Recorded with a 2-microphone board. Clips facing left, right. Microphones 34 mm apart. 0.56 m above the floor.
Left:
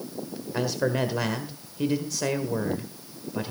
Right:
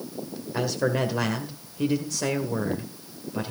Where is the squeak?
I don't hear a squeak.